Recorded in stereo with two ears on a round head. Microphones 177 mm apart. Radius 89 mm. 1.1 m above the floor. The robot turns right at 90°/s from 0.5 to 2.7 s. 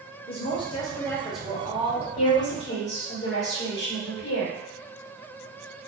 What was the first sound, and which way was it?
A woman speaking, 25° left (ahead or behind).